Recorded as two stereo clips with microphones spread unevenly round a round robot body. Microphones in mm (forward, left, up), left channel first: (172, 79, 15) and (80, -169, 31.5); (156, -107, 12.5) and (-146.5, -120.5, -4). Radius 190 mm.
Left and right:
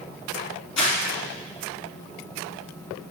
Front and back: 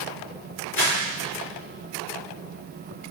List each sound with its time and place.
0.8 s crumpling: 65° left, 3.5 m